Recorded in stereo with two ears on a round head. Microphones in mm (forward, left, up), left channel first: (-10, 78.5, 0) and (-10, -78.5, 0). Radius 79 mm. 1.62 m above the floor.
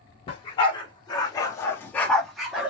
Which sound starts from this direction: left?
A dog barking, at 0.3 s.